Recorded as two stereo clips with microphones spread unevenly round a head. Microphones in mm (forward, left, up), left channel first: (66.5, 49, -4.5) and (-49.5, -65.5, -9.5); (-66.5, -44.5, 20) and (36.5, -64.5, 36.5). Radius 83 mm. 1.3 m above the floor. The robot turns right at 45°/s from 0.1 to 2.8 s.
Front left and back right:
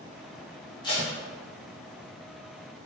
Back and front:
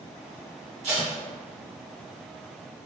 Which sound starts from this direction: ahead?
Tape being pulled, at 0.8 s.